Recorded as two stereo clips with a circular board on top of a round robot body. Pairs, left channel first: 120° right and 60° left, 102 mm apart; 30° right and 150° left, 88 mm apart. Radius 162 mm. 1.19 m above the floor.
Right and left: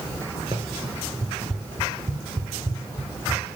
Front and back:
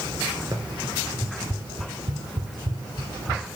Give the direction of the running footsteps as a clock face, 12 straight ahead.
8 o'clock.